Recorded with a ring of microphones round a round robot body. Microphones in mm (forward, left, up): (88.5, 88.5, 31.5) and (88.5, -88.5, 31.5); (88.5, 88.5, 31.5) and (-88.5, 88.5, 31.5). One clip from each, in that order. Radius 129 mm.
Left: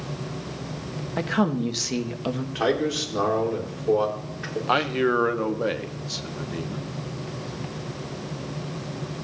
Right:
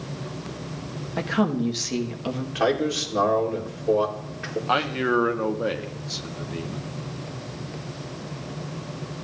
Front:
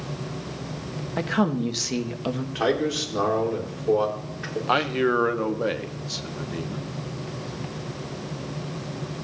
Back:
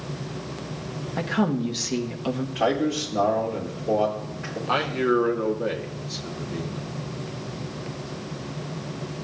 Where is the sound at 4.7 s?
20° left, 1.1 m.